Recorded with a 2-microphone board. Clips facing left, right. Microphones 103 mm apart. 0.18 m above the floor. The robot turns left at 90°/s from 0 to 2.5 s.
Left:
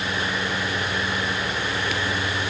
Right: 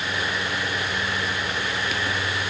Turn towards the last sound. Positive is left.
No sound to turn to.